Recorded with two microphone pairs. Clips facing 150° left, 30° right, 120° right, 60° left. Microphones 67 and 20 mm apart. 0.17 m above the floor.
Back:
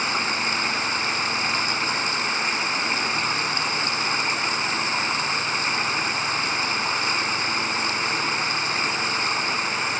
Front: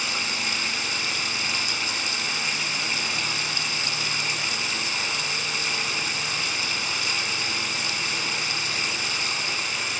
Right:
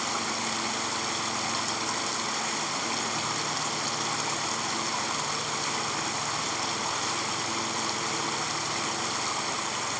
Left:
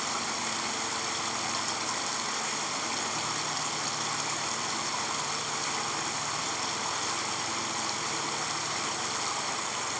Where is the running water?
165° left, 0.9 m.